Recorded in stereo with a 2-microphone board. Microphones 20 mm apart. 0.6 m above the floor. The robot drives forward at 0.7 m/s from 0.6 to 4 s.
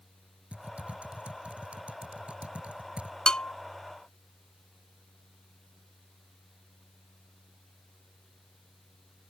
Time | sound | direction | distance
0.5 | typing on a keyboard | 80° right | ?
3.3 | a bell | 40° left (ahead or behind) | ?